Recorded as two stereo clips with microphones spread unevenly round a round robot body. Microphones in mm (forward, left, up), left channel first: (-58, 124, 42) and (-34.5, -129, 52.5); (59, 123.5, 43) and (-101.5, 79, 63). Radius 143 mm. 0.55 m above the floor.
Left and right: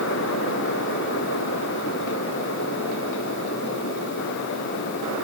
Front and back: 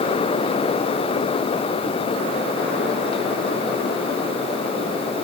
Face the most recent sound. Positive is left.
No sound to turn to.